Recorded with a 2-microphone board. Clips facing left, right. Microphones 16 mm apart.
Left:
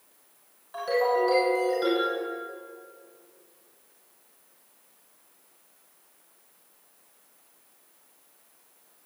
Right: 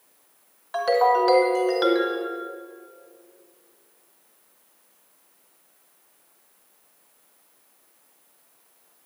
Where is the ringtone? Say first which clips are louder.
Right 5 dB; 35° right (ahead or behind), 2 m.